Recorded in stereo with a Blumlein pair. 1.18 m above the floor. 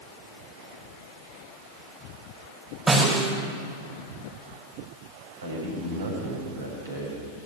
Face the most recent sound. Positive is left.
turn(degrees=-65)